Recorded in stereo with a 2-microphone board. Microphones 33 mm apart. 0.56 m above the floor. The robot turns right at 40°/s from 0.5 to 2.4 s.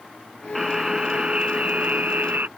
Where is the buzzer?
170° right; by 2.5 s 100° right.